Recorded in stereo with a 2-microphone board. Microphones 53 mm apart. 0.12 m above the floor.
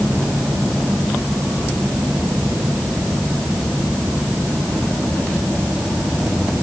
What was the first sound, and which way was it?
Only background noise.